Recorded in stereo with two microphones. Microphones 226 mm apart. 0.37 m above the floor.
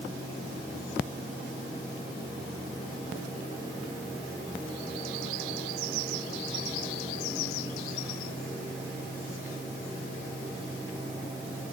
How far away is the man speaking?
I don't hear a man speaking.